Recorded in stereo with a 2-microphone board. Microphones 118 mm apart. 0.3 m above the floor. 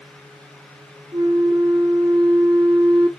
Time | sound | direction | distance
1.1 | a flute | 50° right (ahead or behind) | 0.8 m